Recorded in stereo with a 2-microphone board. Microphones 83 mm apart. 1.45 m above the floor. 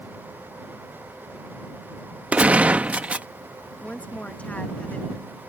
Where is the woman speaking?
20° left (ahead or behind).